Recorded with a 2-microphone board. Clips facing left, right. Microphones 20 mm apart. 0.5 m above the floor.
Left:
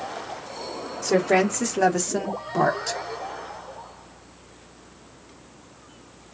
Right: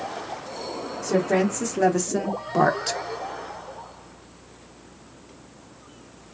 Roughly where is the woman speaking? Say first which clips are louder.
Left 2 dB; left.